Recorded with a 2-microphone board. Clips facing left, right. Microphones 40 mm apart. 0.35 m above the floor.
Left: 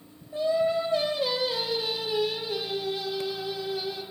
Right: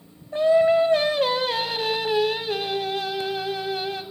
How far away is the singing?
About 1.4 m.